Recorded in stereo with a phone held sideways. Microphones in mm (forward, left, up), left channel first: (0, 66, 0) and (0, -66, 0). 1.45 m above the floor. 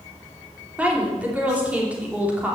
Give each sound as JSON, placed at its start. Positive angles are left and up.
{"t": 0.8, "sound": "a woman speaking", "side_deg": -10, "distance_m": 3.5}